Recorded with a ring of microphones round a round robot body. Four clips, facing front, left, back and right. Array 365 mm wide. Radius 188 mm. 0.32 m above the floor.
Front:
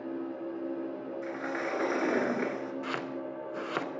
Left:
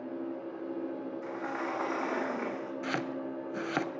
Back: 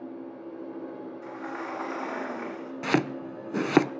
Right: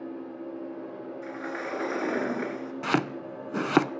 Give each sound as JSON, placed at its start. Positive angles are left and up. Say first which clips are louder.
{"t": 1.2, "sound": "a sliding door", "louder": "right 2 dB, front 2 dB", "azimuth_deg": -45, "distance_m": 3.5}
{"t": 2.8, "sound": "chopping", "louder": "right 8 dB, back 8 dB", "azimuth_deg": -150, "distance_m": 0.7}